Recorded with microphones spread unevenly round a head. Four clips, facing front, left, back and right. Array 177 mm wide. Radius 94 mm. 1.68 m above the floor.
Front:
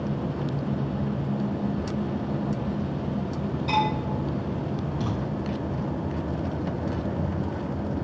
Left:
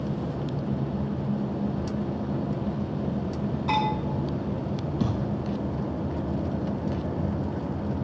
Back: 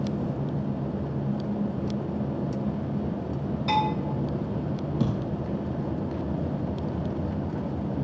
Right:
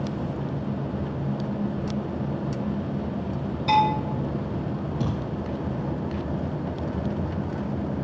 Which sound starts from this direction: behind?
A thud, at 5.0 s.